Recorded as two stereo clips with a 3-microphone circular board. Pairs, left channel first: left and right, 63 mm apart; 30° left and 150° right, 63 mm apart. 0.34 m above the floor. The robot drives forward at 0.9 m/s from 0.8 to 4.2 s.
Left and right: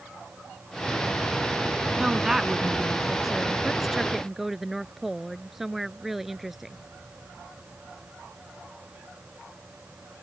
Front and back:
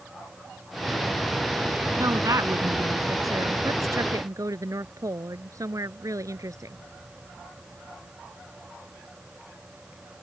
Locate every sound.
2.0 s a woman speaking: 175° right